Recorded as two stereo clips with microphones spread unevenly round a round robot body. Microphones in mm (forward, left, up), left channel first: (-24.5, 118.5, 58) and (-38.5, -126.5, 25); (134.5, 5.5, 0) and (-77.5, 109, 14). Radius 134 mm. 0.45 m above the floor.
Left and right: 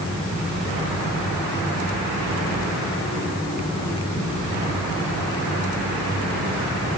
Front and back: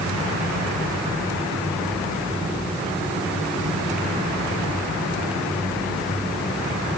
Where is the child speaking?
I don't hear a child speaking.